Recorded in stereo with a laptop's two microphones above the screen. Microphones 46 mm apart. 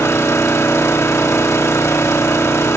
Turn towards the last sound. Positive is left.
turn(degrees=85)